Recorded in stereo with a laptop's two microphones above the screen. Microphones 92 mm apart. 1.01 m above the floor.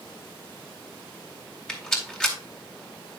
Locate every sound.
1.7 s a rattle: 10° left (ahead or behind), 3.5 m